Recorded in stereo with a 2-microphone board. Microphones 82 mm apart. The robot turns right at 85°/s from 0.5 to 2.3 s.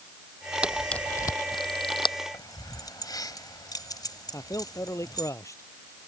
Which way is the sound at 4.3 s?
35° left (ahead or behind).